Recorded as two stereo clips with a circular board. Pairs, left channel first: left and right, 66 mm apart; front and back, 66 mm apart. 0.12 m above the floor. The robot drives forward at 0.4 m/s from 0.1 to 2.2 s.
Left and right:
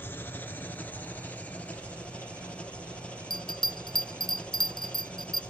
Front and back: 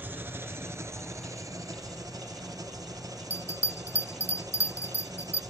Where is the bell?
170° left, 0.6 m.